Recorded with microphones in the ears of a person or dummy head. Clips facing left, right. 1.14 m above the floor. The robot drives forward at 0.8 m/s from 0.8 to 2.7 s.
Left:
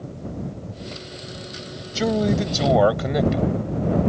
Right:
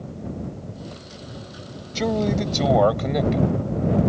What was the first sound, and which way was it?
A man speaking, 5° left (ahead or behind).